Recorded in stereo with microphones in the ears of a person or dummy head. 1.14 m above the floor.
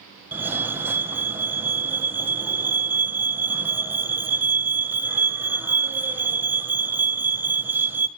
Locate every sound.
0.3 s a fire alarm: 10° right (ahead or behind), 1.8 m